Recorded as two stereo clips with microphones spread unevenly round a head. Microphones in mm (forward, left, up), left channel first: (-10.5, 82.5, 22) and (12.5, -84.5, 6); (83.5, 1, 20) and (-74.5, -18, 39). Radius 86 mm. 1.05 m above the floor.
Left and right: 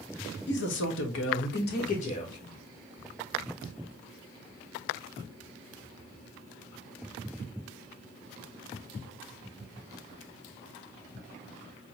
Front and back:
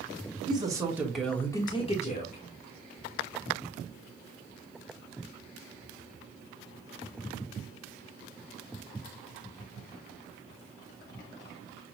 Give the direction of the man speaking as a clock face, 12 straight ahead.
8 o'clock.